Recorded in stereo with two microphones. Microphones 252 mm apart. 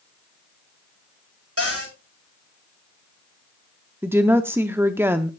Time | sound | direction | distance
1.6 | a cupboard door | 65° right (ahead or behind) | 7 m
4.0 | a woman speaking | 10° right (ahead or behind) | 0.6 m